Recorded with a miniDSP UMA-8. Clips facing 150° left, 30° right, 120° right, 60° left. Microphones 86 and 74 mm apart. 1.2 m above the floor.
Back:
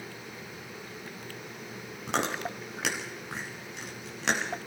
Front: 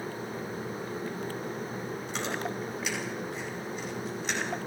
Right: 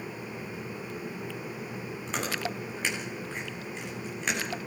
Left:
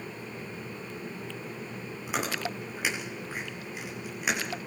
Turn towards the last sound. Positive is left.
turn(degrees=140)